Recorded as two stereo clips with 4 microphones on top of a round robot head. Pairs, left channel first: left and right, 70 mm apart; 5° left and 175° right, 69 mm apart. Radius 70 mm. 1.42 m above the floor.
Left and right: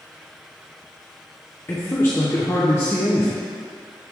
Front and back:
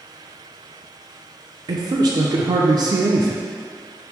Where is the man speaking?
155° left, 0.5 m.